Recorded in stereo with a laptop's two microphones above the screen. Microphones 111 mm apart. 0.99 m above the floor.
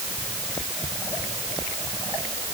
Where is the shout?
I don't hear a shout.